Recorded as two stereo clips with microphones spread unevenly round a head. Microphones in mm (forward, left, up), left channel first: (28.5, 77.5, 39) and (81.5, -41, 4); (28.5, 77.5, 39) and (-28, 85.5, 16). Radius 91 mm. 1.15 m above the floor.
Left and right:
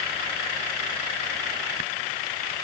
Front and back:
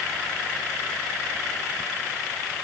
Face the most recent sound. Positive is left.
No sound to turn to.